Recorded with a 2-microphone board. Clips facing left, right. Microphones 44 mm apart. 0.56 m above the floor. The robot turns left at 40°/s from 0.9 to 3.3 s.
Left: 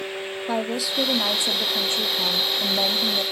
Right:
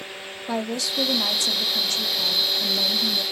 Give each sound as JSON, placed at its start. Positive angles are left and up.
{"t": 0.5, "sound": "a woman speaking", "azimuth_deg": 155, "distance_m": 0.6}